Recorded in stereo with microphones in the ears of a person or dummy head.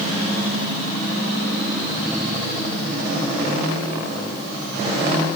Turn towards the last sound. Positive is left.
No sound to turn to.